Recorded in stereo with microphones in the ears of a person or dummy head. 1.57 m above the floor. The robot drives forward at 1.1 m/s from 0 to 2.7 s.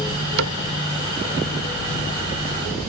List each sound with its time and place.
0.4 s a cupboard door: 80° right; by 0.6 s 85° right